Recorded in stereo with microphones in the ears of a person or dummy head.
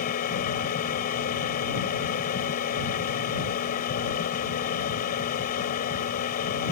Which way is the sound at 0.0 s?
45° left (ahead or behind).